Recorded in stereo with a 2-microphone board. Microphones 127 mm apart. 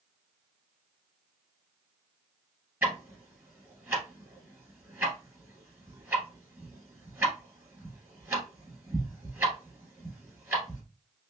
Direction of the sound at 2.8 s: 20° right (ahead or behind).